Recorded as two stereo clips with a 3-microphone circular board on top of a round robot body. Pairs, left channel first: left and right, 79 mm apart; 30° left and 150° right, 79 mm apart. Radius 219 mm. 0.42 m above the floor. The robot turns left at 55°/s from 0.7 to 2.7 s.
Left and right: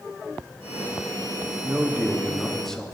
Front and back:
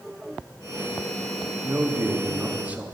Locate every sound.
1.6 s a man speaking: 135° right, 0.8 m; by 2.9 s 165° left, 0.8 m